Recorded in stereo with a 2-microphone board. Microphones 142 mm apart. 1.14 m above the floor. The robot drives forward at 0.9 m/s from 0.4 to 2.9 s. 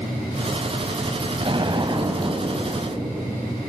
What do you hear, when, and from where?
1.4 s an explosion: 40° right (ahead or behind), 1.3 m; by 3.4 s 25° right (ahead or behind), 2 m